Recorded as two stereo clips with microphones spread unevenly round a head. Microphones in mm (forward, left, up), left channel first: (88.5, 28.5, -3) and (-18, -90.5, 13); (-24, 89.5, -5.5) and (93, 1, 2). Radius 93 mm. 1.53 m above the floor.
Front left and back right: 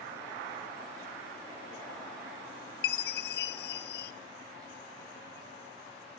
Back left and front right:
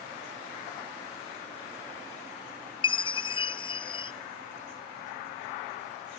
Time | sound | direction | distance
2.8 | a chime | 85° left | 0.6 m